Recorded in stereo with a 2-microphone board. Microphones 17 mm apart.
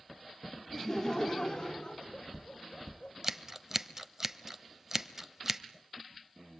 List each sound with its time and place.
0.7 s laughter: 25° left (ahead or behind), 1.5 m; by 3.1 s 65° left (ahead or behind), 3 m
3.2 s scissors: 20° right (ahead or behind), 0.8 m